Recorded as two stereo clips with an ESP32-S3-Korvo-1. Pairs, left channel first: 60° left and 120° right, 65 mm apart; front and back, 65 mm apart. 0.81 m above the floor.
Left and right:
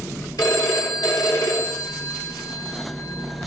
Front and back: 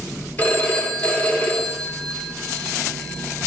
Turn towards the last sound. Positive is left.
turn(degrees=60)